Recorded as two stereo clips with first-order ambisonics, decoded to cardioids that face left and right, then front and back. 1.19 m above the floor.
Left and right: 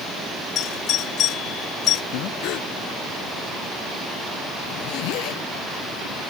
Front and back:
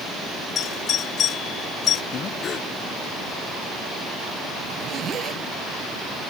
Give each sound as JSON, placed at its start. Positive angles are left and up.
{"t": 0.6, "sound": "a doorbell", "azimuth_deg": 50}
{"t": 2.1, "sound": "breathing", "azimuth_deg": 60}
{"t": 4.7, "sound": "a zipper", "azimuth_deg": 120}